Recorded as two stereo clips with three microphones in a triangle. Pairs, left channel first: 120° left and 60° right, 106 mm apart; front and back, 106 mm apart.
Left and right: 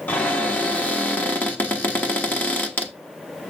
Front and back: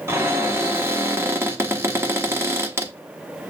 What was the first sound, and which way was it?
A cupboard door, 165° left.